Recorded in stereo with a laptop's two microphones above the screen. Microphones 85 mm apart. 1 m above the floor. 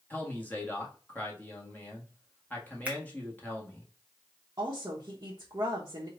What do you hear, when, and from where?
0.1 s a man speaking: 20° left (ahead or behind), 1.6 m
2.9 s a finger snap: 15° right (ahead or behind), 0.8 m
4.6 s a woman speaking: 45° right (ahead or behind), 1.0 m